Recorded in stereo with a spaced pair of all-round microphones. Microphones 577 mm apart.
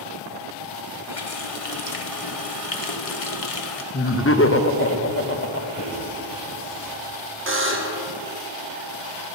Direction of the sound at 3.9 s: 25° left (ahead or behind).